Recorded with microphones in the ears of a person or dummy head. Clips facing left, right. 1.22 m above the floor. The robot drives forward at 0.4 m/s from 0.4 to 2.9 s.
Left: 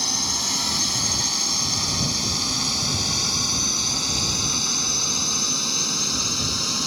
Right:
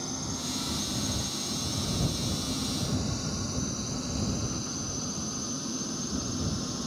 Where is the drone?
80° left; by 6.9 s 85° left.